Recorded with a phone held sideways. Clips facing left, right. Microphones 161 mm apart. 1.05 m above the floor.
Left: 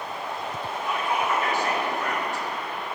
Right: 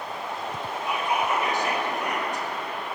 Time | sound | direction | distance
0.9 | whispering | 20° right (ahead or behind) | 1.6 m